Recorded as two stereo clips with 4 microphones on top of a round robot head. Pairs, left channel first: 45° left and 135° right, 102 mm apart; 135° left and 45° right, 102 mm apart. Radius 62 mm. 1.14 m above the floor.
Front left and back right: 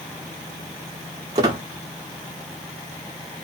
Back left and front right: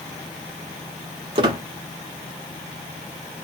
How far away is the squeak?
About 1.0 m.